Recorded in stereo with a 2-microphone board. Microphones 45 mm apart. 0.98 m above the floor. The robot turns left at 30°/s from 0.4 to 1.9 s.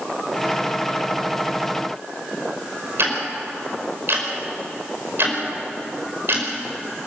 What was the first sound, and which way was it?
Ticking, 60° right (ahead or behind).